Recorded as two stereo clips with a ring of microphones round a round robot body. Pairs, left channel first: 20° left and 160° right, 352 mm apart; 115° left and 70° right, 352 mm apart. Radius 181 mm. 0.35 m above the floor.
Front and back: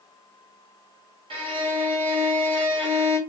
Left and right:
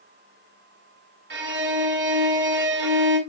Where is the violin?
95° right, 1.1 m.